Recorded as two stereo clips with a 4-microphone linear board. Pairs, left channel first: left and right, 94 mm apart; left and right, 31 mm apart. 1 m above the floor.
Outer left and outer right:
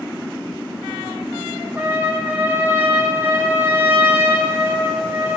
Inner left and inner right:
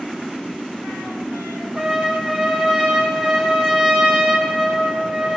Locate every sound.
1.8 s a trumpet: 15° right (ahead or behind), 2.5 m